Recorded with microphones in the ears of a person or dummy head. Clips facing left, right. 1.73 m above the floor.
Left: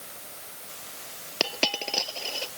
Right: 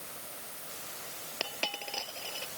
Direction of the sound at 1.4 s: 75° left (ahead or behind).